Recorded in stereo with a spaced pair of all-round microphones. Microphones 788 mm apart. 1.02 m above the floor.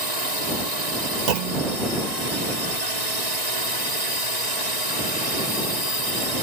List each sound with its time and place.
0.0 s a drone: 55° right (ahead or behind)
1.3 s a clunk: 60° right (ahead or behind)